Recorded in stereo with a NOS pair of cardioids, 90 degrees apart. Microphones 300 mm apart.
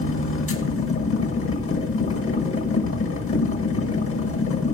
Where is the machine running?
40° left, 1.5 m.